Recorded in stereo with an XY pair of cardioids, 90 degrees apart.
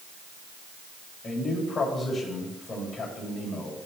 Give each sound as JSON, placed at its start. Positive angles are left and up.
{"t": 1.2, "sound": "a man speaking", "azimuth_deg": 50, "distance_m": 7.0}